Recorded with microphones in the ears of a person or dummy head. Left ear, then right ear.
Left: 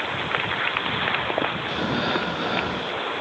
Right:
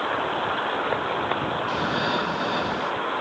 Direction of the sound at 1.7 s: 10° right (ahead or behind).